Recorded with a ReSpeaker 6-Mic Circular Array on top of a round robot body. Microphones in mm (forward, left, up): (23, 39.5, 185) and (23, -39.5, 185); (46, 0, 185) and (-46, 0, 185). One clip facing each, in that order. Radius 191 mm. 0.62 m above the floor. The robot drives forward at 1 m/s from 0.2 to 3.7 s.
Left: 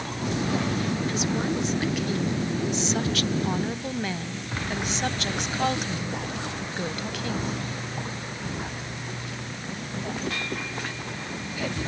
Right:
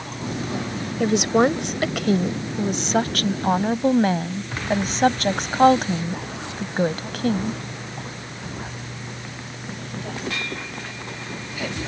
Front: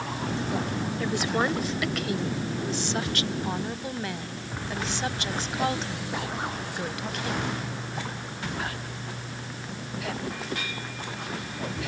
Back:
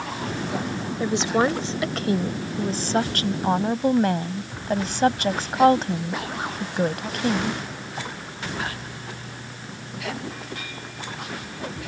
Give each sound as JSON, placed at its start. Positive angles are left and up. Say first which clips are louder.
{"t": 1.0, "sound": "a woman speaking", "louder": "right 9 dB, back 6 dB", "azimuth_deg": -110}